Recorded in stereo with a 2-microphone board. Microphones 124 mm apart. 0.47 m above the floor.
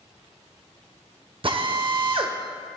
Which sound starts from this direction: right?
A drill, at 1.4 s.